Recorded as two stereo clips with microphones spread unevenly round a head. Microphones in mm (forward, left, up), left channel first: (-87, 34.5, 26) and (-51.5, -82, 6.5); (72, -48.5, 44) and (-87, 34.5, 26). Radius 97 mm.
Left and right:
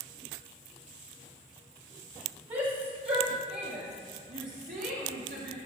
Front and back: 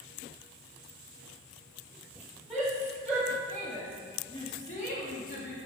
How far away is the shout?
About 2 m.